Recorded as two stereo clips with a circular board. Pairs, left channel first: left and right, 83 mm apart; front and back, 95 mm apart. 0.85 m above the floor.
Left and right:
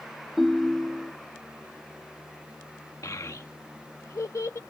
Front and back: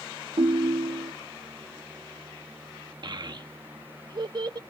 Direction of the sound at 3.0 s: 140° left.